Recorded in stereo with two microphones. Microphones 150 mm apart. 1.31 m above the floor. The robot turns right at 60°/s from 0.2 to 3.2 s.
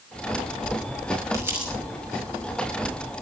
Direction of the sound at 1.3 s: 20° right (ahead or behind).